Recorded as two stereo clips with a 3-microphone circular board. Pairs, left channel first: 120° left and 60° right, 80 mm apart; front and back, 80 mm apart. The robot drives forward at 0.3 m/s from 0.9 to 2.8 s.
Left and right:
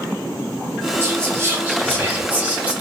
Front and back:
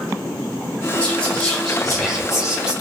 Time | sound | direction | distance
1.0 | whispering | 60° right | 1.1 m